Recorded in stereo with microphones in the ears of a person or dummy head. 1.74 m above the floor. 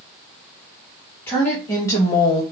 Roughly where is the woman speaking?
Centre.